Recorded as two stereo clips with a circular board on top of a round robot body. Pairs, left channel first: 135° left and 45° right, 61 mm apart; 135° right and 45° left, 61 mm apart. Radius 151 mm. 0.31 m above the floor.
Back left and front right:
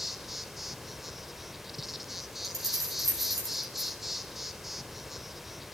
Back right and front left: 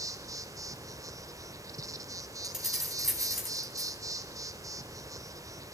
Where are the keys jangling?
40° right, 3 m.